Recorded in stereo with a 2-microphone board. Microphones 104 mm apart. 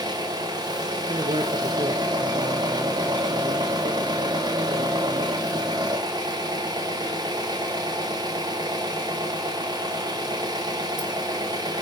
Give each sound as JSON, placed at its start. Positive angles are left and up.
{"t": 0.0, "sound": "an engine running", "side_deg": -40, "distance_m": 1.2}
{"t": 1.1, "sound": "a man speaking", "side_deg": -60, "distance_m": 0.9}